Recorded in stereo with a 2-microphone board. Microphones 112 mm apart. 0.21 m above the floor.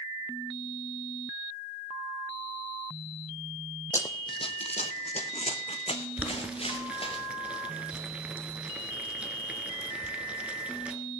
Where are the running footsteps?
30° left (ahead or behind), 0.6 m; by 7.2 s 55° left (ahead or behind), 1.9 m.